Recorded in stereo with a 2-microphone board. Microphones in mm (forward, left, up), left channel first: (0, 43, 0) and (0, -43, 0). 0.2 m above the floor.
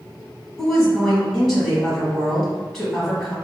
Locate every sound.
0.6 s a woman speaking: 5° left (ahead or behind), 1.4 m